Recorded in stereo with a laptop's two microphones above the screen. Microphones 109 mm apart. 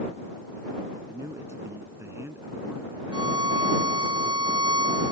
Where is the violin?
45° right (ahead or behind).